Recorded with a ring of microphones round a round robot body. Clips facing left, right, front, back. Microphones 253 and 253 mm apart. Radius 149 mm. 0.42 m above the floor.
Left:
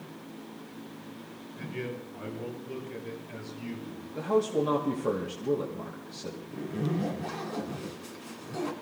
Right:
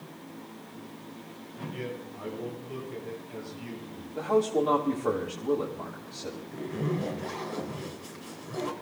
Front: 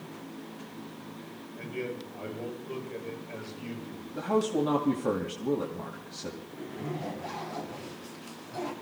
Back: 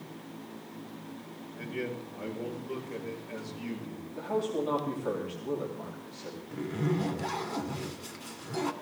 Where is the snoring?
No snoring in this recording.